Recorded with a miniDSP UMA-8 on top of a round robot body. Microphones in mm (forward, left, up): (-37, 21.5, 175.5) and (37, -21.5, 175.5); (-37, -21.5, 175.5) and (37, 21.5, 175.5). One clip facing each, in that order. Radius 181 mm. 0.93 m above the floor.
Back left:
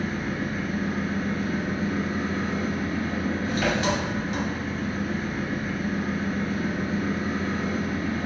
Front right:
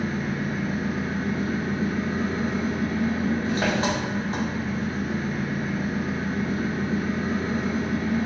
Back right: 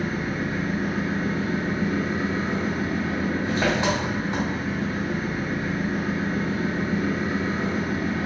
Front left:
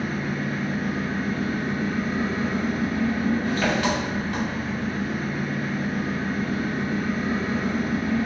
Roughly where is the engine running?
Right.